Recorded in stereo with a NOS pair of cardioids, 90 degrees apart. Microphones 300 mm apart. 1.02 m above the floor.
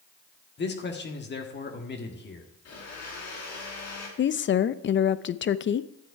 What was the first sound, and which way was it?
A man speaking, 35° left.